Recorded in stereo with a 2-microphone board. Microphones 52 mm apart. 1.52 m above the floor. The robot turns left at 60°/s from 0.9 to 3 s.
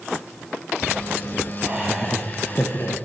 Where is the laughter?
155° right, 0.8 m; by 2.9 s 125° left, 0.8 m.